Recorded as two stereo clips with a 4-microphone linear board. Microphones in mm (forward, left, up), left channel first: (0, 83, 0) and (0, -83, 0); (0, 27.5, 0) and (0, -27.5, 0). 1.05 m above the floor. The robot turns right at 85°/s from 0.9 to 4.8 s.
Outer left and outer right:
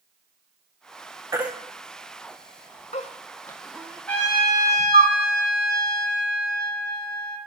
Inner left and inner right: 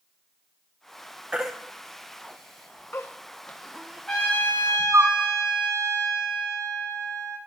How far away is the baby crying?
About 0.6 m.